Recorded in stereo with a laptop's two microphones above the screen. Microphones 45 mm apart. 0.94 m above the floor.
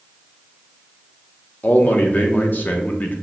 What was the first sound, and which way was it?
A man speaking, 40° left (ahead or behind).